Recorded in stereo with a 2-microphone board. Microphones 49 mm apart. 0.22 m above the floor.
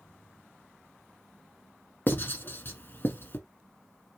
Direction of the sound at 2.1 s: 45° left (ahead or behind).